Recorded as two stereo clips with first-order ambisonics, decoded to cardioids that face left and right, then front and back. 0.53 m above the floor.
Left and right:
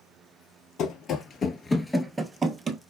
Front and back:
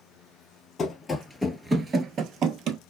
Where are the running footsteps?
60° left, 0.7 m; by 2.8 s 150° right, 0.8 m.